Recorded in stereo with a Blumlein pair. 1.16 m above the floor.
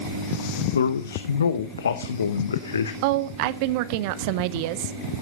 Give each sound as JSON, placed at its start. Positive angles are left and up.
{"t": 0.7, "sound": "a man speaking", "azimuth_deg": 70, "distance_m": 0.8}
{"t": 3.0, "sound": "a woman speaking", "azimuth_deg": -45, "distance_m": 0.7}